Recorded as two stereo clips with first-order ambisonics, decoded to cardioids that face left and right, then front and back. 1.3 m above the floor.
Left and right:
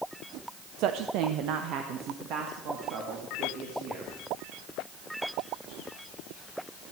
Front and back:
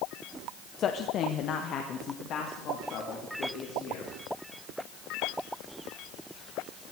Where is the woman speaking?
55° right, 0.7 m; by 4.1 s 45° right, 3.5 m.